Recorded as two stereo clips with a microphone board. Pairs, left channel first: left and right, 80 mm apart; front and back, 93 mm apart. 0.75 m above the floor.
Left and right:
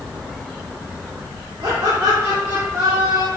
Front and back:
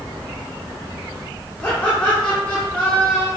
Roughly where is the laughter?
Right.